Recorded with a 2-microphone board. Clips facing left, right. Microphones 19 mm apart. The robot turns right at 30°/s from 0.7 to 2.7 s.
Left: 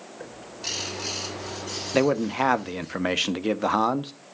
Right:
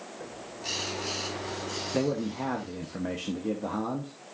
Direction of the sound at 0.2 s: 105° left.